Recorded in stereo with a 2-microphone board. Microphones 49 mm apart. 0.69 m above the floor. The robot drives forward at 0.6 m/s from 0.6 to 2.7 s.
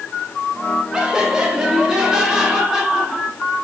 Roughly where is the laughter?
Centre.